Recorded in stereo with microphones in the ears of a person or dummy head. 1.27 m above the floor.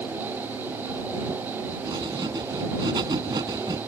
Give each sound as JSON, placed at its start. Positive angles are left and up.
{"t": 1.9, "sound": "writing", "side_deg": -20}